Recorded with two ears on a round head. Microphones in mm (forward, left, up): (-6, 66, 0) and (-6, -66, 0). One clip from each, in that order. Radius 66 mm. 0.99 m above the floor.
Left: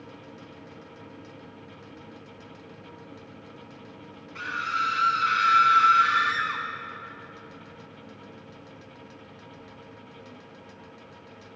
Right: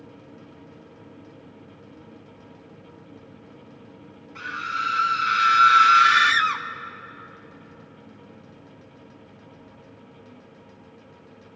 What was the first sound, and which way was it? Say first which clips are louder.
A scream: even; 10° left (ahead or behind).